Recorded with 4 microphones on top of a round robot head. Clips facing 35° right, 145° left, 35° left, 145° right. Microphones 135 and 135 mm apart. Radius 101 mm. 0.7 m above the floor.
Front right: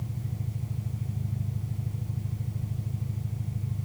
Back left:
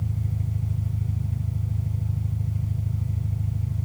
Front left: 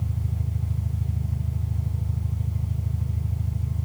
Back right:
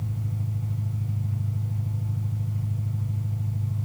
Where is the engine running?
110° left, 3 m.